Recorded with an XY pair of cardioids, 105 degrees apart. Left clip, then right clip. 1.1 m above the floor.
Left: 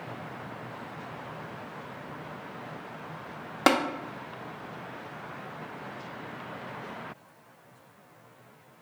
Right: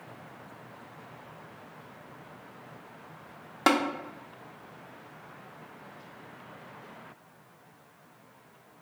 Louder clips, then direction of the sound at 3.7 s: Left 1 dB; 25° left.